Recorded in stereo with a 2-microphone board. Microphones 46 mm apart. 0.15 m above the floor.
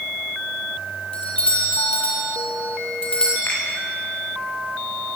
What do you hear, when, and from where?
1.1 s a doorbell: 20° left (ahead or behind), 5.5 m
3.5 s a finger snap: 55° left (ahead or behind), 9.5 m